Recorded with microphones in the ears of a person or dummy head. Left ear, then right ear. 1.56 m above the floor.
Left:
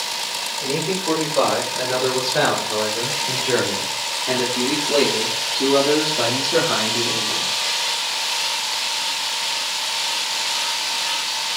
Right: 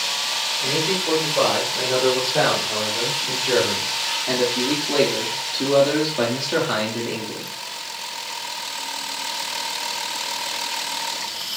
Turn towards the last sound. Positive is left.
turn(degrees=-55)  # may be behind; listen again after turning